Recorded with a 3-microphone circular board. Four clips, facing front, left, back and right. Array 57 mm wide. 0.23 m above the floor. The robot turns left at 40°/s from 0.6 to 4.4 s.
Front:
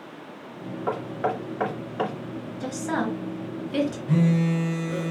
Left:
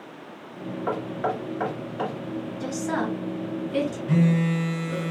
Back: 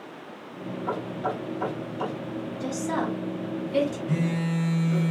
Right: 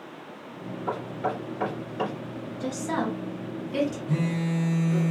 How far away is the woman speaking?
About 2 m.